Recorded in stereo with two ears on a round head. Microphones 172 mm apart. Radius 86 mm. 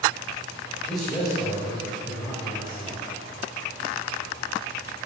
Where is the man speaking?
5° left (ahead or behind), 2 m.